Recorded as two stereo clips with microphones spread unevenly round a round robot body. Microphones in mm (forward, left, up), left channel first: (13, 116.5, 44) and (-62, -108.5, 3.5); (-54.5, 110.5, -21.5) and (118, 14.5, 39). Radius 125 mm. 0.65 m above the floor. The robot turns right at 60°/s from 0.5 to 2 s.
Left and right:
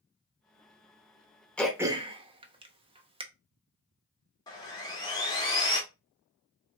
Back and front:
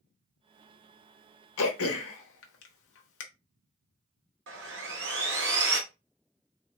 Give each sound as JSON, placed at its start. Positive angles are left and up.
{"t": 1.6, "sound": "throat clearing", "azimuth_deg": 155, "distance_m": 0.9}
{"t": 4.5, "sound": "sawing", "azimuth_deg": -5, "distance_m": 1.7}